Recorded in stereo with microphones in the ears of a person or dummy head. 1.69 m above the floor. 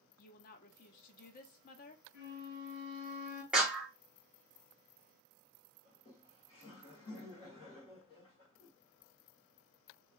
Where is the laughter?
25° left (ahead or behind), 1.0 m.